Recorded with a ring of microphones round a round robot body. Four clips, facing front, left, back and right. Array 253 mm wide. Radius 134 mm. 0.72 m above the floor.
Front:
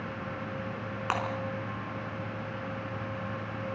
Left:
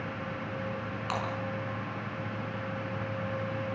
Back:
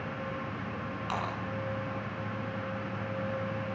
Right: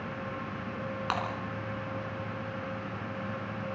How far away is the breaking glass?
About 4.5 m.